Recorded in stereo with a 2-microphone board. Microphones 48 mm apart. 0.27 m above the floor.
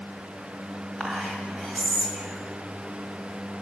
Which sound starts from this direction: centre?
Whispering, at 1.0 s.